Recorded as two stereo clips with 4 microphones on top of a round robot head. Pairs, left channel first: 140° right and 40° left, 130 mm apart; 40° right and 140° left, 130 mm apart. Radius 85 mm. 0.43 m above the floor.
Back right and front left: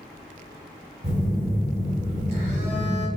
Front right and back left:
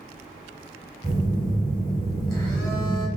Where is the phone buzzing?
15° left, 1.8 m.